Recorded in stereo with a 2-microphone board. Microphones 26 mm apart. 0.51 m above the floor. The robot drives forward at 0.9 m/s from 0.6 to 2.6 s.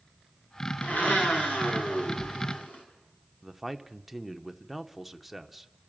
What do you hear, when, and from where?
0.8 s a blender: 75° left (ahead or behind), 5.5 m; by 2.8 s 70° left (ahead or behind), 5.5 m
3.4 s a man speaking: 5° right (ahead or behind), 1.0 m